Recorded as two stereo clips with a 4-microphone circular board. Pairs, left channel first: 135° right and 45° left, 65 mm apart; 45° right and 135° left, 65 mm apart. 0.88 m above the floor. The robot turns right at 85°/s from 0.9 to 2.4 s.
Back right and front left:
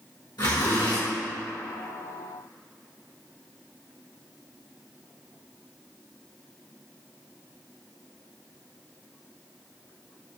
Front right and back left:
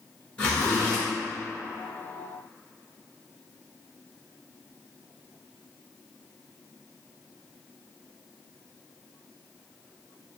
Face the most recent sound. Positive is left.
turn(degrees=10)